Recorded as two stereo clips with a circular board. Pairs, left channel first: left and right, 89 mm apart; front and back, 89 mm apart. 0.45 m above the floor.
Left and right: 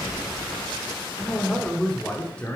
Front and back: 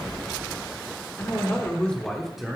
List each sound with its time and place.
1.2 s a man speaking: 10° left, 1.3 m; by 2.6 s 115° left, 1.2 m